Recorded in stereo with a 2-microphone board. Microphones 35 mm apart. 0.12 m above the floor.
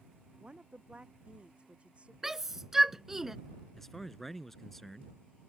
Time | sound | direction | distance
0.4 | a woman speaking | 30° right (ahead or behind) | ?
2.2 | a shout | 10° right (ahead or behind) | ?
3.8 | a man speaking | 5° left (ahead or behind) | ?